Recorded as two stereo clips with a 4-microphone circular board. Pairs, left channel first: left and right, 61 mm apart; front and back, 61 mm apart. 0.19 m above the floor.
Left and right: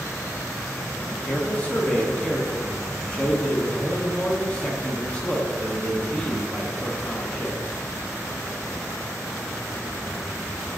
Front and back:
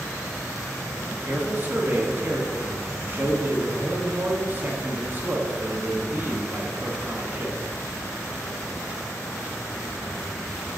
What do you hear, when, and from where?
1.1 s a man speaking: 150° left, 1.5 m